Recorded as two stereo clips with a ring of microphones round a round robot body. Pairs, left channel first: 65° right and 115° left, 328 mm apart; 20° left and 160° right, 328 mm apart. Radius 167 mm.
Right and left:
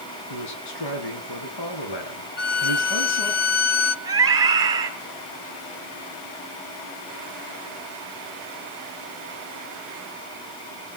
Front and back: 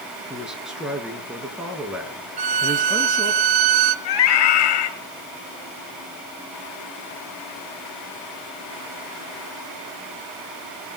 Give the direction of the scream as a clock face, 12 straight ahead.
11 o'clock.